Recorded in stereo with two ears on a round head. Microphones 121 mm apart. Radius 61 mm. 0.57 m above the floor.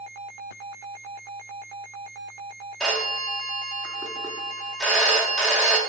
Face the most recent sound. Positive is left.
turn(degrees=5)  # may be behind; listen again after turning